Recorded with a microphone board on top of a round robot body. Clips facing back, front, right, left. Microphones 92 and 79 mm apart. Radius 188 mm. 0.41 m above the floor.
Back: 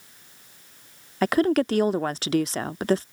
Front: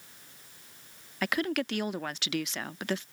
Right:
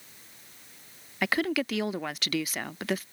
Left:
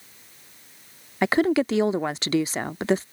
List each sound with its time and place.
1.2 s a woman speaking: 140° left